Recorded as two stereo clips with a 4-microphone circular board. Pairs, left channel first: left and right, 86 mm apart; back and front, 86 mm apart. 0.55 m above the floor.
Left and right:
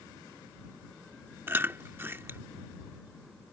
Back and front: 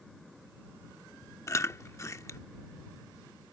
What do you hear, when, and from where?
1.5 s chewing: 140° right